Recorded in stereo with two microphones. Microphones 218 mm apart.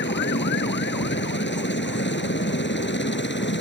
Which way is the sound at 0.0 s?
55° left (ahead or behind).